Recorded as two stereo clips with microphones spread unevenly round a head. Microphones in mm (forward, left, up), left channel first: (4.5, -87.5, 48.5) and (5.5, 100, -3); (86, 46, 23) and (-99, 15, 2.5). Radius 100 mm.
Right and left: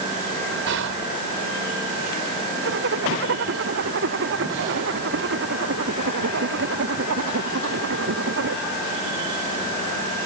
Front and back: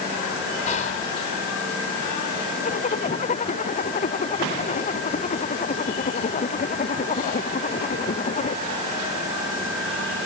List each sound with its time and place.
0.7 s whispering: 60° left
2.6 s a zipper: 60° left